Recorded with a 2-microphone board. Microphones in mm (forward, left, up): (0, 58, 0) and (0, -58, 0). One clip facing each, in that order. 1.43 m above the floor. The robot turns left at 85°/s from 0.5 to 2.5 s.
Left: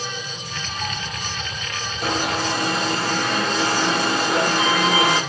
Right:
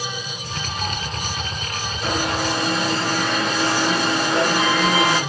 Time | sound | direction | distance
2.0 | an alarm | 105° left | 2.5 m